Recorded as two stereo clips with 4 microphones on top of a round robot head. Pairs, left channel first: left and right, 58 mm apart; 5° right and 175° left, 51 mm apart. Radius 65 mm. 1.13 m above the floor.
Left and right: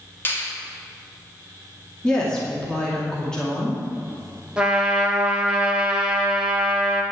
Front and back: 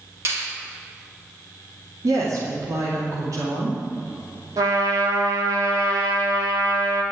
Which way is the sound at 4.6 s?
165° right.